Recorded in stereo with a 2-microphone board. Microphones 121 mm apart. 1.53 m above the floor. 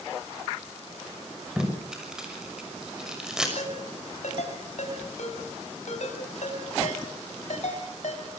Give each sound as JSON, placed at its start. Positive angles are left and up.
{"t": 1.6, "sound": "tape being pulled", "side_deg": -5, "distance_m": 6.0}
{"t": 3.6, "sound": "a ringtone", "side_deg": 70, "distance_m": 5.5}